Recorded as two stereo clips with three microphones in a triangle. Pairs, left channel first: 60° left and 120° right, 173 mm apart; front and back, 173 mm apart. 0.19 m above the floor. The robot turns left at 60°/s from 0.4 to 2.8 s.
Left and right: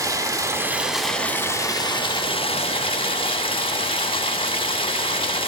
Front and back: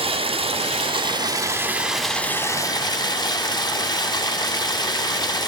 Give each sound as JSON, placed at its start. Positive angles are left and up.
{"t": 0.0, "sound": "running water", "azimuth_deg": -175, "distance_m": 0.8}